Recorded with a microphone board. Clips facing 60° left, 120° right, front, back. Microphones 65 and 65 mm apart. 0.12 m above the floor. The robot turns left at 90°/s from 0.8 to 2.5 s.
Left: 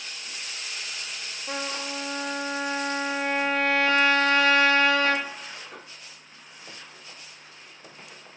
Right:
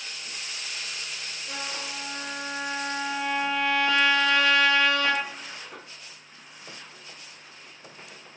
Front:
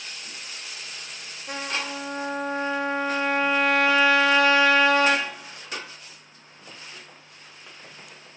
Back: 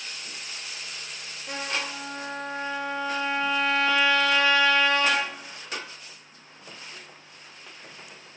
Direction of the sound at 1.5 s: 110° left.